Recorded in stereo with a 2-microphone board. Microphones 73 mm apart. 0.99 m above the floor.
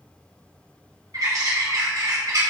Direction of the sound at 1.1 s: 50° right (ahead or behind).